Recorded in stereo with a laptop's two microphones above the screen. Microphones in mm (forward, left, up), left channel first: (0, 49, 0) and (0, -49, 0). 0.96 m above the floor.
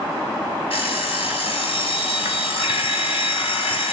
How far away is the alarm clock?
About 1.1 m.